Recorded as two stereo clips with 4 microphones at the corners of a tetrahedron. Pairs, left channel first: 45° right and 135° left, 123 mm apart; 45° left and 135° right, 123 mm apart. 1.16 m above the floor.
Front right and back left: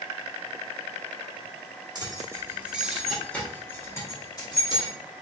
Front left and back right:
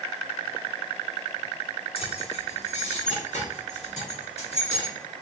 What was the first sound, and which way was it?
Keys jangling, 80° left.